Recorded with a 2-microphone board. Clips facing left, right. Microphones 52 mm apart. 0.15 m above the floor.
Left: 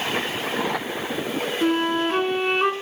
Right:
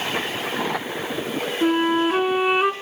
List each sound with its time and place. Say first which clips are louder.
1.6 s a flute: right 3 dB; 5° right (ahead or behind), 1.3 m